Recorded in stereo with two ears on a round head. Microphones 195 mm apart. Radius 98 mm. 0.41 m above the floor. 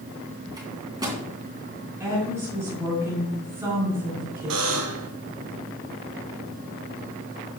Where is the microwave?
20° right (ahead or behind), 3 m.